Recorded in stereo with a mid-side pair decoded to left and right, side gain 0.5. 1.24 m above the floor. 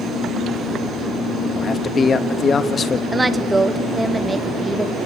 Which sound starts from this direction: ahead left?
A man speaking, at 1.6 s.